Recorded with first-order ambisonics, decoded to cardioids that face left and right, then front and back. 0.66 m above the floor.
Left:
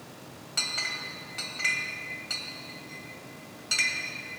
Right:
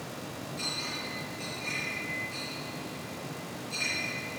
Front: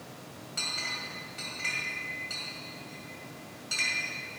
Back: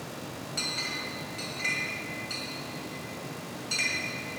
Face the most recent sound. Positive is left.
turn(degrees=95)